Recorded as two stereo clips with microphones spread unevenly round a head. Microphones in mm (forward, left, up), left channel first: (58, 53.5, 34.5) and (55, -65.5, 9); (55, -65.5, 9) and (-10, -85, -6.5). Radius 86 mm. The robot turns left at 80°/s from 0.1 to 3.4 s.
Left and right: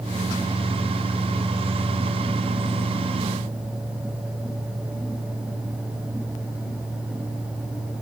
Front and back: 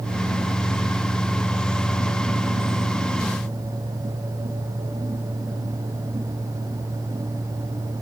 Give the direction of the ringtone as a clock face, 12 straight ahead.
I don't hear a ringtone.